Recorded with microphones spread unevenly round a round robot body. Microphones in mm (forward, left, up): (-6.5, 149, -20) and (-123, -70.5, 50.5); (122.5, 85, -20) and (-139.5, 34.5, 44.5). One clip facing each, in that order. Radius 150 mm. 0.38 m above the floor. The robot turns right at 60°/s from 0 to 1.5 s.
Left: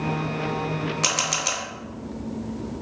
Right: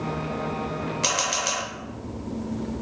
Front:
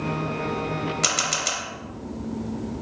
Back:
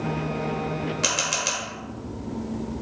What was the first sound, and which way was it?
A camera shutter, 55° left.